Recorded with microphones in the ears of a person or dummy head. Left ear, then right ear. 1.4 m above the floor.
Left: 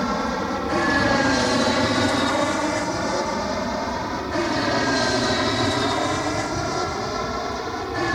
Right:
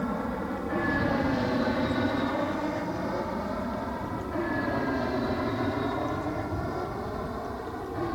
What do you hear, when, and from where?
0.0 s an aircraft: 60° left (ahead or behind); by 8.2 s 70° left (ahead or behind)